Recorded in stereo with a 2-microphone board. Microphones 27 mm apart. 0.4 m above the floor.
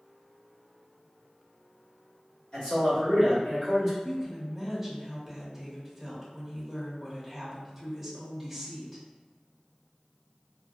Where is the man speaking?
40° left (ahead or behind), 1.7 m; by 3.9 s 15° left (ahead or behind), 1.5 m.